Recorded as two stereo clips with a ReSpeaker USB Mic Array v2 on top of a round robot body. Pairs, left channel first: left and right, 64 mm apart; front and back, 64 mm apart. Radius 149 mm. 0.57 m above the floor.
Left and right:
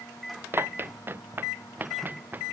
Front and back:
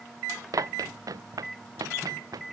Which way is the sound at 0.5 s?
145° right.